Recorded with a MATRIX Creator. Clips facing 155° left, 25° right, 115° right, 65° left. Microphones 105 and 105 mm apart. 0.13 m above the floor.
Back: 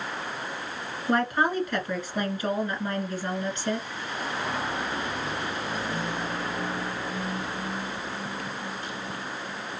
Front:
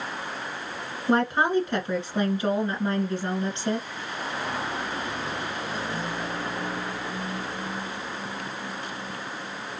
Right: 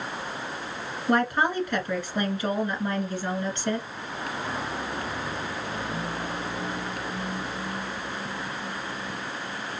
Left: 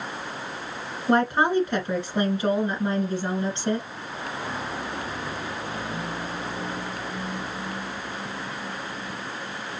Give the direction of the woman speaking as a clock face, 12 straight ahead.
11 o'clock.